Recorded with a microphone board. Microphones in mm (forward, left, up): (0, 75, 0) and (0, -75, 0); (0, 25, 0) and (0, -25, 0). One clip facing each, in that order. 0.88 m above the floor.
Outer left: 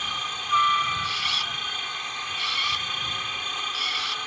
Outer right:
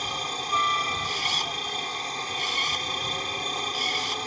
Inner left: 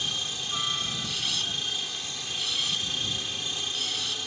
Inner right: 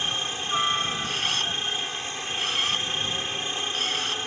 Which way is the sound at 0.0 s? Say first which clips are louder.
Outer right 4 dB, inner right 4 dB; 40° right (ahead or behind).